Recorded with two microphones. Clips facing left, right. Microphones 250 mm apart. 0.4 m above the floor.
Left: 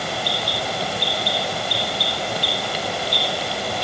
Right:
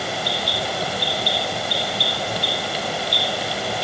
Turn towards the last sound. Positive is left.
No sound to turn to.